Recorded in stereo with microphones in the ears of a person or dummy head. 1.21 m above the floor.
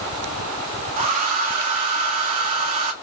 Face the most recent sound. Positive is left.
turn(degrees=-40)  # may be behind; listen again after turning